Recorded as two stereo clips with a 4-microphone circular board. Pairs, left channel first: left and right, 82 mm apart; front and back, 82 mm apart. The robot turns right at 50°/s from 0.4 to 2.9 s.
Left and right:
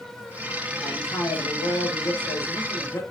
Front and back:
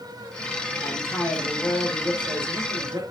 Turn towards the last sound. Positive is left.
turn(degrees=140)